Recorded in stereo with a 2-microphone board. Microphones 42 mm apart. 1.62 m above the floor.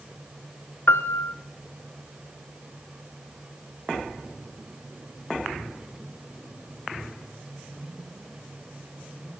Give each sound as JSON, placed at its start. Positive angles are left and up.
{"t": 0.9, "sound": "a piano", "side_deg": 70, "distance_m": 0.6}